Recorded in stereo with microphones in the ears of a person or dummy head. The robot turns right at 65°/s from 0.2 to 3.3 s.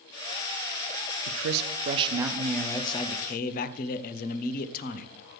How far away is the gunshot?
I don't hear a gunshot.